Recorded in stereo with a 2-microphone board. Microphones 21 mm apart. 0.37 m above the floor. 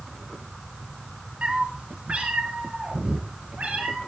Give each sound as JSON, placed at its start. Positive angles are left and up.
{"t": 1.4, "sound": "a cat meowing", "side_deg": -75, "distance_m": 2.0}